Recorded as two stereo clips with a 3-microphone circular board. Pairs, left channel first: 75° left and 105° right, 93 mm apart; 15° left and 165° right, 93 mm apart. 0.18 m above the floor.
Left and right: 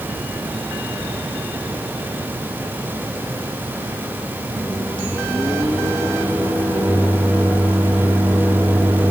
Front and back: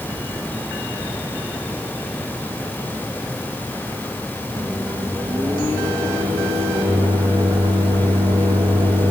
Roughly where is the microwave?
Behind.